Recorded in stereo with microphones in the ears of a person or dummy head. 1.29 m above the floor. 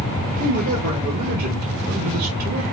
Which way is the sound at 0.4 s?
45° right (ahead or behind).